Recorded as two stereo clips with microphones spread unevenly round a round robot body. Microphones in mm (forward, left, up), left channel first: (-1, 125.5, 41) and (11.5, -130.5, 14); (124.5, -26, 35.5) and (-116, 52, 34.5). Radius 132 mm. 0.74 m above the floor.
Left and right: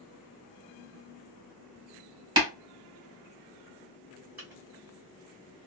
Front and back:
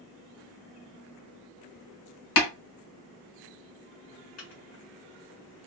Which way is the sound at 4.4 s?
10° right.